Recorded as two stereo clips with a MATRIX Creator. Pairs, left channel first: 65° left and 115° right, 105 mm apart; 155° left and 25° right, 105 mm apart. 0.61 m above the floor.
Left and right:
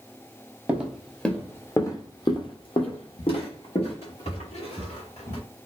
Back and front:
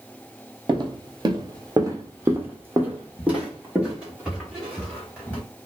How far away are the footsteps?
About 0.8 m.